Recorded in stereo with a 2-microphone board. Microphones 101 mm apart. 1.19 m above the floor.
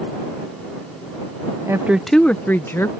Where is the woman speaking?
30° right (ahead or behind); by 2.9 s 25° left (ahead or behind).